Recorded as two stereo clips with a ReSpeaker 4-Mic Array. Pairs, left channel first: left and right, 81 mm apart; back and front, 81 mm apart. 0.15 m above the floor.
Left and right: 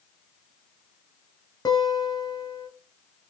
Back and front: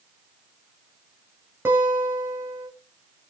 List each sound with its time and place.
1.6 s a guitar: 60° left, 0.7 m